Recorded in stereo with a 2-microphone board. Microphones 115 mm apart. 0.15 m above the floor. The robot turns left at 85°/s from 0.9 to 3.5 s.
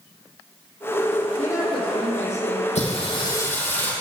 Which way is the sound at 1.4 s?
170° left.